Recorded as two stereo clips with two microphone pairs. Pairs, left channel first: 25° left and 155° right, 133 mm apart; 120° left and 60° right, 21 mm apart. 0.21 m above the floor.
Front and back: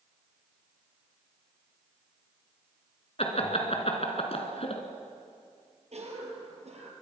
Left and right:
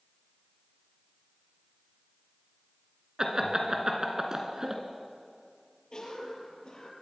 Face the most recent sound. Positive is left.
turn(degrees=170)